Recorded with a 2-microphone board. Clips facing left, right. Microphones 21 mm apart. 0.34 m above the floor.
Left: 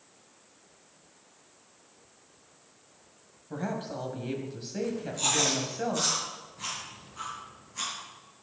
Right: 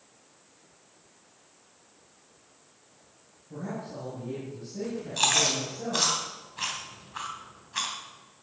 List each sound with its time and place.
3.5 s a woman speaking: 55° left (ahead or behind), 2.5 m
5.2 s chewing: 55° right (ahead or behind), 3 m